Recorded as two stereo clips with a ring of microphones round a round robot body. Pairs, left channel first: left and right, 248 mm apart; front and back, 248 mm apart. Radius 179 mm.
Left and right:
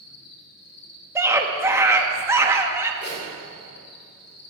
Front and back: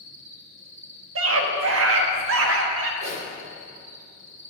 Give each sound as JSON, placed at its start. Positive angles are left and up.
{"t": 0.0, "sound": "an insect", "azimuth_deg": 115, "distance_m": 2.5}
{"t": 1.1, "sound": "a scream", "azimuth_deg": -170, "distance_m": 1.3}
{"t": 3.0, "sound": "a zipper", "azimuth_deg": 140, "distance_m": 3.5}